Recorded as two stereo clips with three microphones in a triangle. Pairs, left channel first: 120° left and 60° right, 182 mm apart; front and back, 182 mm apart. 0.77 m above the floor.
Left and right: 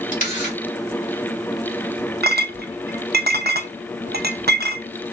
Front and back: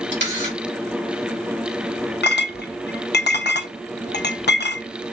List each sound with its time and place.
0.1 s a camera shutter: 165° left, 2.5 m
2.2 s a clink: 30° right, 0.6 m